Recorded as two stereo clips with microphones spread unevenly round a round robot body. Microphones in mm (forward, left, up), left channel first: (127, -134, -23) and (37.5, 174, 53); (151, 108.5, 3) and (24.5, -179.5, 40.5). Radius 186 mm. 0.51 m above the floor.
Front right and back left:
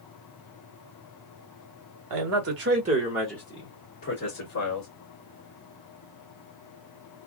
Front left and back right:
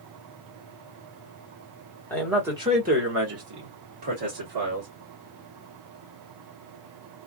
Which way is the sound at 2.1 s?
140° left.